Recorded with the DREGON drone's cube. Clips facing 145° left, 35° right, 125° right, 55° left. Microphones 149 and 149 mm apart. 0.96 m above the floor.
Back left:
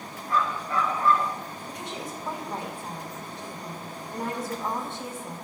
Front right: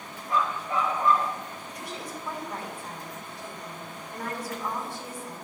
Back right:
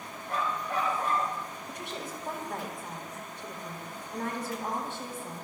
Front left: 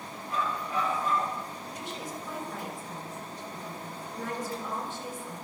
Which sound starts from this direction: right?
A dog barking, at 0.3 s.